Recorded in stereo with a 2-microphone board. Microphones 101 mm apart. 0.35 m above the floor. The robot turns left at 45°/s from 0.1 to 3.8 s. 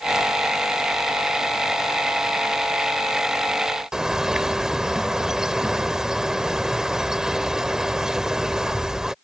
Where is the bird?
5° right (ahead or behind).